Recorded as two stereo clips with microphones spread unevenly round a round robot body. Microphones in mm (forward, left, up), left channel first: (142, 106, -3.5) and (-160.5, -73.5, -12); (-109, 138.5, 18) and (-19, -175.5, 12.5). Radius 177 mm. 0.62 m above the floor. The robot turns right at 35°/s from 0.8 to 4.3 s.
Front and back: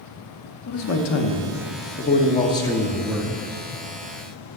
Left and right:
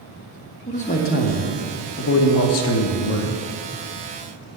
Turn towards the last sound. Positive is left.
turn(degrees=170)